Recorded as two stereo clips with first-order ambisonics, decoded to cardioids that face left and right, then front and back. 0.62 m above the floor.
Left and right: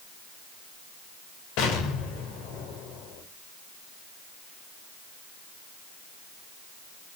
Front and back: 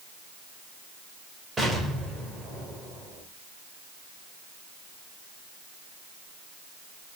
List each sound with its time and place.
1.6 s an explosion: 100° left, 3 m